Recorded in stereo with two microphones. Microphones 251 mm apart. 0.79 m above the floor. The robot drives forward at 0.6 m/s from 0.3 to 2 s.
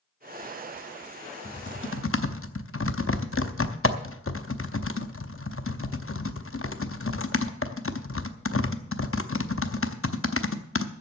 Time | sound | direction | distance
1.4 | typing on a keyboard | 40° left (ahead or behind) | 0.9 m